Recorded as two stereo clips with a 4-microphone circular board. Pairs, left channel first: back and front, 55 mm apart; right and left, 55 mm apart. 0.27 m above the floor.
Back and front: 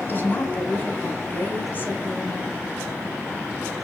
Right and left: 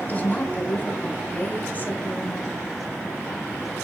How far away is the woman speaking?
About 2.5 m.